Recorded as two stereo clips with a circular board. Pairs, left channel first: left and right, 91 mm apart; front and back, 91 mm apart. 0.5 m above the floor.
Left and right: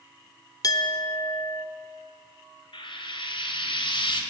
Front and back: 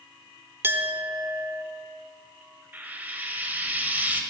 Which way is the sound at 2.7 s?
110° left.